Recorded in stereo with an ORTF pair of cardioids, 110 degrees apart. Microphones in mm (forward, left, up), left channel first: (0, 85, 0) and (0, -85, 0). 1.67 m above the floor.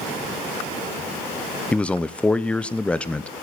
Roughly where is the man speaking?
Ahead.